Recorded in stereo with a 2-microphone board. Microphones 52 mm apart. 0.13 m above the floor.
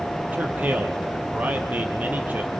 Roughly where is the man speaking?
Right.